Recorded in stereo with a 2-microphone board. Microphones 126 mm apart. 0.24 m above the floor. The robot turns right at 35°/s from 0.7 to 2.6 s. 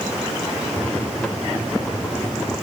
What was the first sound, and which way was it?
Only background noise.